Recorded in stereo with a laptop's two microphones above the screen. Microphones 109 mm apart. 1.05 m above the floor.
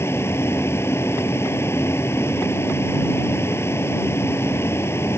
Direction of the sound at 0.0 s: 25° left (ahead or behind).